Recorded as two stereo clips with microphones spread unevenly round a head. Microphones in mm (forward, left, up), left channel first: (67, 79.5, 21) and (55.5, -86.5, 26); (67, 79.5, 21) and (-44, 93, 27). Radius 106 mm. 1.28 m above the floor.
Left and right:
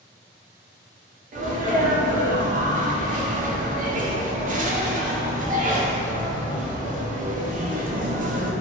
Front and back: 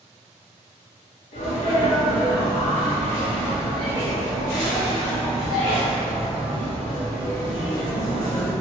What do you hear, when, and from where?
1.3 s a sneeze: 50° right, 0.5 m